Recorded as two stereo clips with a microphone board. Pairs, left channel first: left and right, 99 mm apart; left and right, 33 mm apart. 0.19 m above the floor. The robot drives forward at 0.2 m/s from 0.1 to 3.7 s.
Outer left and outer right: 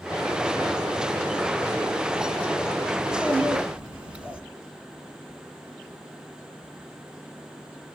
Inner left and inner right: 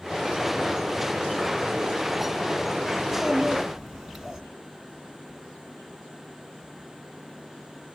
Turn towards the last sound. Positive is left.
turn(degrees=-15)  # may be behind; listen again after turning